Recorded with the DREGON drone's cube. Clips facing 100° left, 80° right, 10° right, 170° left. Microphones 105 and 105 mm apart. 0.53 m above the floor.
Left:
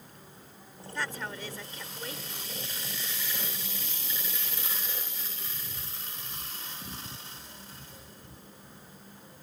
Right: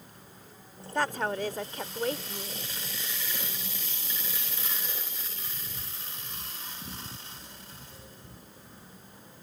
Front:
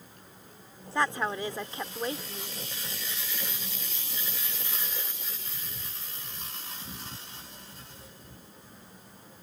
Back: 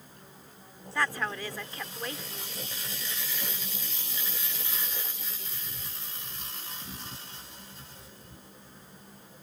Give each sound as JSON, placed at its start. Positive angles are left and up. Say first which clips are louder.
{"t": 0.9, "sound": "a woman speaking", "louder": "right 8 dB, front 3 dB", "azimuth_deg": -75}